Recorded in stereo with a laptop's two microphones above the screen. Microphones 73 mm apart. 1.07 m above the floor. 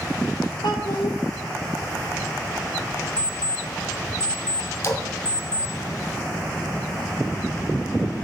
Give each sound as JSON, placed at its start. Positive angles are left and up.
{"t": 0.6, "sound": "a child speaking", "side_deg": 75, "distance_m": 1.6}
{"t": 3.2, "sound": "an alarm clock", "side_deg": -75, "distance_m": 1.2}
{"t": 4.8, "sound": "a splash", "side_deg": 45, "distance_m": 1.6}